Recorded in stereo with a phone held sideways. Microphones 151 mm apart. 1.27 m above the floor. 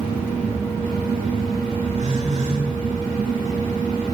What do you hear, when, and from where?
1.9 s a phone buzzing: 55° right (ahead or behind), 6.5 m